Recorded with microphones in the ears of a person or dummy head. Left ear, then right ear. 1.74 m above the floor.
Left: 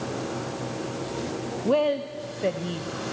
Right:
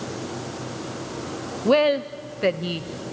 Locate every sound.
1.6 s a woman speaking: 30° right (ahead or behind), 0.6 m